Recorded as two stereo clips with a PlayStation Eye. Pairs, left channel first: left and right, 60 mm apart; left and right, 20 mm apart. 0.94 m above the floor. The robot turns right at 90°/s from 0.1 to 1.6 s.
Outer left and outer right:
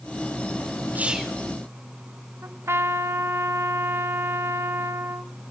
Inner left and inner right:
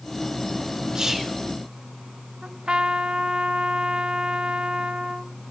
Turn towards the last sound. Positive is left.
turn(degrees=-45)  # may be behind; listen again after turning